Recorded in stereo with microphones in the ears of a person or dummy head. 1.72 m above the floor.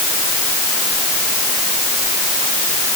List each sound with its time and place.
Only background noise.